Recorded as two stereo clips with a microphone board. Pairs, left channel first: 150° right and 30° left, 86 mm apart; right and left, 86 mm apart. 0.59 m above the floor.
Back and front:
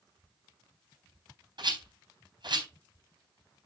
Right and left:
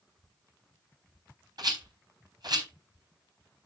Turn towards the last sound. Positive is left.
turn(degrees=55)